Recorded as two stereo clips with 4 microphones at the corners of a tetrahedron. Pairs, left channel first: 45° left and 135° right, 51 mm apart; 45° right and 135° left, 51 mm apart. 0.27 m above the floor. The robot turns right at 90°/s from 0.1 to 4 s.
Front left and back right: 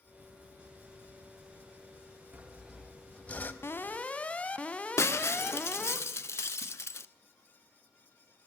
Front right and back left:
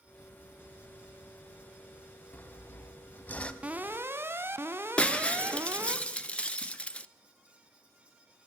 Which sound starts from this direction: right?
Sawing, at 2.3 s.